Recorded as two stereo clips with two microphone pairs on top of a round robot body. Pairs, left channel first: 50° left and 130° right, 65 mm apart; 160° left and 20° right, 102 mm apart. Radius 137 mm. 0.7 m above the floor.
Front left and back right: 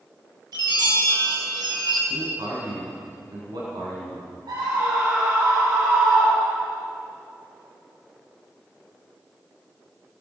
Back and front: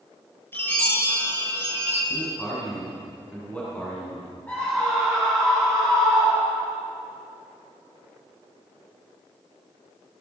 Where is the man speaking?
120° right, 7.5 m.